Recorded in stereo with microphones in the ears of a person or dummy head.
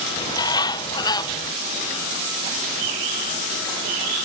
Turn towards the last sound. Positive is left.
turn(degrees=25)  # may be behind; listen again after turning